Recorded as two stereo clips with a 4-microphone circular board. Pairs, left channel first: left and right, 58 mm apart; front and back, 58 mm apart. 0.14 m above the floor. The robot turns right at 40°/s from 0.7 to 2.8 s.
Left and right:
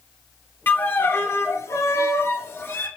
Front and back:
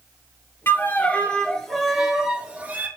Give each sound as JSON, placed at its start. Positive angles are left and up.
{"t": 0.7, "sound": "a violin", "azimuth_deg": 40, "distance_m": 0.5}